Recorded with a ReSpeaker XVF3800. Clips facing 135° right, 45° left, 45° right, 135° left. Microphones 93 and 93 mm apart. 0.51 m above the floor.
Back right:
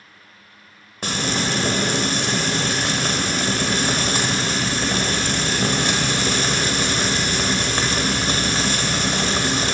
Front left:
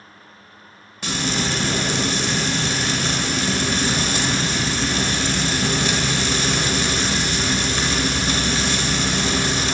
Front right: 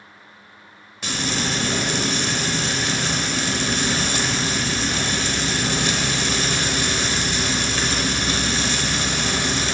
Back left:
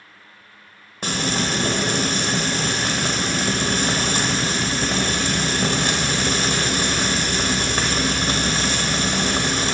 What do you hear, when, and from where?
1.0 s frying: straight behind, 1.3 m